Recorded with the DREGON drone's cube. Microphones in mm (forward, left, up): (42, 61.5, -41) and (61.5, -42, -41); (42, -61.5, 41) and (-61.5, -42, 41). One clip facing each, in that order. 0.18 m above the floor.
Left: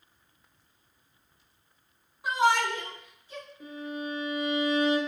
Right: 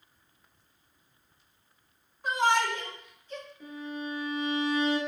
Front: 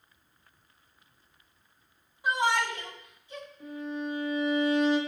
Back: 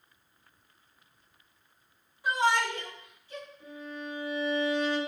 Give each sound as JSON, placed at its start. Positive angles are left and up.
{"t": 2.2, "sound": "a shout", "azimuth_deg": 30, "distance_m": 1.2}
{"t": 3.6, "sound": "a violin", "azimuth_deg": 35, "distance_m": 2.0}